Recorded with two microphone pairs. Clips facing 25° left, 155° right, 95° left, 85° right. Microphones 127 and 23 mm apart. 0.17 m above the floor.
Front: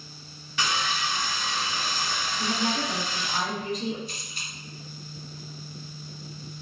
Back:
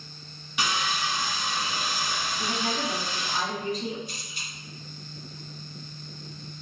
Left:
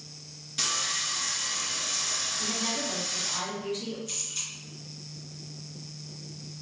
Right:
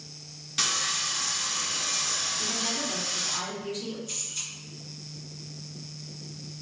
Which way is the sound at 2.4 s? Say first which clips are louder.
Front 3 dB, right 1 dB; 30° left.